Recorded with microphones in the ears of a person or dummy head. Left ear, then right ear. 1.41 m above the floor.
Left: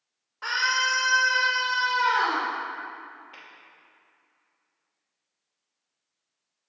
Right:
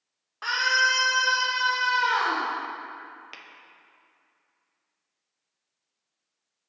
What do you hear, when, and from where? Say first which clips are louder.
0.4 s a scream: right 2 dB; 20° right (ahead or behind), 0.9 m; by 2.5 s 75° right (ahead or behind), 2.5 m
3.3 s tapping: right 2 dB; 75° right (ahead or behind), 0.7 m